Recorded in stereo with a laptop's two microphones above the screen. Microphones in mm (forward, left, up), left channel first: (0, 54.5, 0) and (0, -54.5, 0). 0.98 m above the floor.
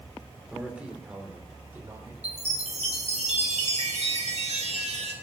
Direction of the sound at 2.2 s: 85° right.